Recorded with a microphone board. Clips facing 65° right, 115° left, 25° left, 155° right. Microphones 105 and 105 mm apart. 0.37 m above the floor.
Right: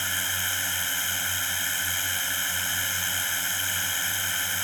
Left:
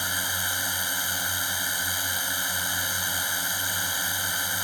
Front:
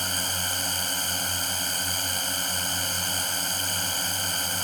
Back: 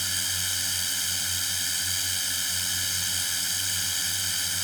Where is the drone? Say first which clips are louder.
Left 1 dB, front 6 dB; 45° left.